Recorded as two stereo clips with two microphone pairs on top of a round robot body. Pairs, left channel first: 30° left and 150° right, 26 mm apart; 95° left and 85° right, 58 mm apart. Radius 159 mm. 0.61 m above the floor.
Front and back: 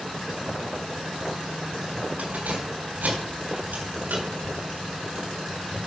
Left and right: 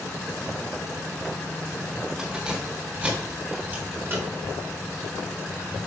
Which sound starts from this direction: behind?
Keys jangling, at 2.2 s.